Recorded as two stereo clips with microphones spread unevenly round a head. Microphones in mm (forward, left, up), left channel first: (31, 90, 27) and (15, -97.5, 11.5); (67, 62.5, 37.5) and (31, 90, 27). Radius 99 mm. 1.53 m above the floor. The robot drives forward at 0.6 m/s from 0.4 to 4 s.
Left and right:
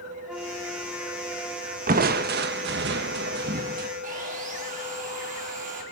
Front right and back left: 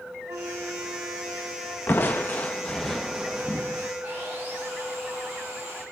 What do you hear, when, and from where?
0.3 s a flute: 175° left, 1.8 m; by 1.8 s straight behind, 2.5 m
1.9 s crushing: 60° right, 1.0 m; by 3.9 s 140° right, 1.3 m
4.0 s sawing: 150° right, 5 m